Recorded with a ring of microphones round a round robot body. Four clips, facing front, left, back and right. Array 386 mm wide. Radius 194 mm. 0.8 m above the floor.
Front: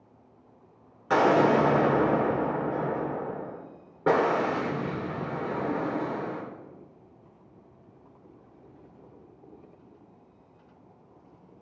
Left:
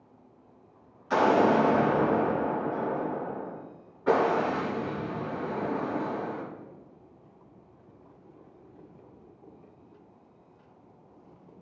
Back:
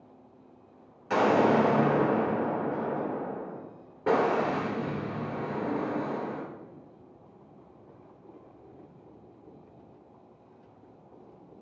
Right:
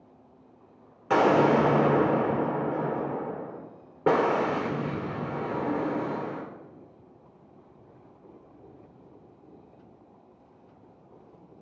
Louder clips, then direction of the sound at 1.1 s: Right 1 dB, front 2 dB; 70° right.